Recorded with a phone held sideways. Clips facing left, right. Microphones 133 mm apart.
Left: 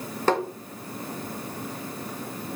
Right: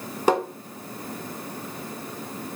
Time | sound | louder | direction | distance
0.3 | tapping | right 2 dB | 15° right (ahead or behind) | 1.3 m